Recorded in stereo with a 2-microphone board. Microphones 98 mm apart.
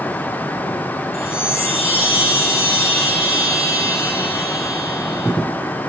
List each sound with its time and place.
1.1 s a chime: 80° left, 2.5 m